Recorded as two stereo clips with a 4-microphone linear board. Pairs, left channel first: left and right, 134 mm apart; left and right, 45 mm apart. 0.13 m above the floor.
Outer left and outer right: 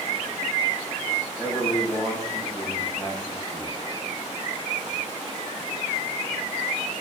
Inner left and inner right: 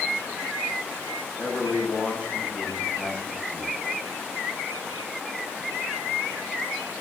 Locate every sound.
1.4 s a man speaking: 25° left (ahead or behind), 7 m